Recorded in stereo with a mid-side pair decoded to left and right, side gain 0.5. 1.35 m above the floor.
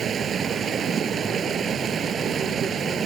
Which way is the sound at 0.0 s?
45° right.